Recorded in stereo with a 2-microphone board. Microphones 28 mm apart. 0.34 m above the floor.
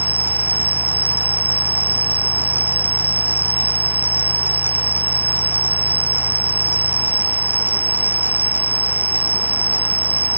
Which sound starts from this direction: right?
An insect, at 0.0 s.